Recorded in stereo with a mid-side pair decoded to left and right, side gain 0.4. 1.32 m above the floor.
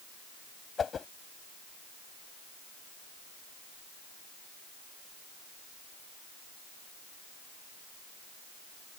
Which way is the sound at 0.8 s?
45° left.